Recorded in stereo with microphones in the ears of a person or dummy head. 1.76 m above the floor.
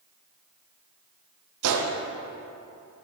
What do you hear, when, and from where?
1.6 s a gunshot: 80° right, 1.2 m